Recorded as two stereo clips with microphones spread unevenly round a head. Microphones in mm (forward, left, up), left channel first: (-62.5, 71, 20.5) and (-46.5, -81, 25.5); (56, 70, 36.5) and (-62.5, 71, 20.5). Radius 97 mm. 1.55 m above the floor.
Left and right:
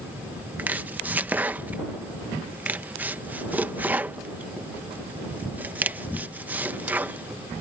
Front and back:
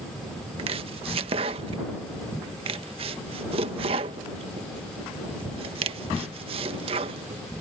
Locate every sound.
0.6 s chopping: 155° right